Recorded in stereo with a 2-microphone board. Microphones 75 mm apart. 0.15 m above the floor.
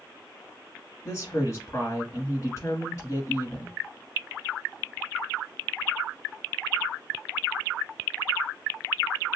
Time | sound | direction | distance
1.1 | a woman speaking | 40° left (ahead or behind) | 1.4 m